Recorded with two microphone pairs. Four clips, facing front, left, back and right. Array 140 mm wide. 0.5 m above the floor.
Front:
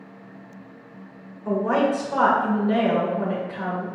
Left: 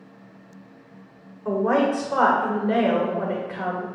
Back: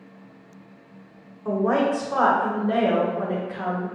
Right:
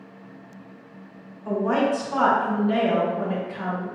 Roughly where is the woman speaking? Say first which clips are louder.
Left 2 dB, even; behind left.